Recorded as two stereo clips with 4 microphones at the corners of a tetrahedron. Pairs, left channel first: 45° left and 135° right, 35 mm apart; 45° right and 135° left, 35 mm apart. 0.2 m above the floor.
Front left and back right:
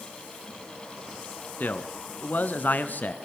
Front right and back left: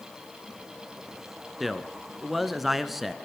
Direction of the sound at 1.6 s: 50° left.